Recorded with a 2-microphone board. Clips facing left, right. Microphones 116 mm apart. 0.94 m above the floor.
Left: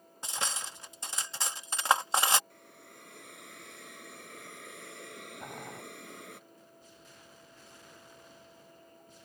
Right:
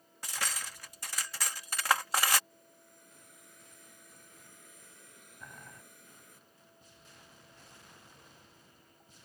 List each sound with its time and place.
0.2 s cutlery clinking: 25° left (ahead or behind)
2.5 s a hiss: 80° left
5.4 s boiling: 45° left (ahead or behind)